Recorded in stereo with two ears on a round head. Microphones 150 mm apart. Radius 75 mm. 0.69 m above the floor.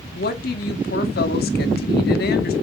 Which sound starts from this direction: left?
A woman speaking, at 0.1 s.